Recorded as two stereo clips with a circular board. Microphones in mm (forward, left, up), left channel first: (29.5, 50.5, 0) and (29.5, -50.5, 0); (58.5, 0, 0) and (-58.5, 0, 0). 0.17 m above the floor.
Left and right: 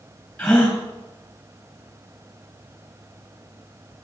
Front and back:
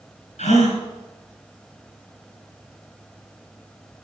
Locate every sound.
0.4 s a gasp: 10° left, 5 m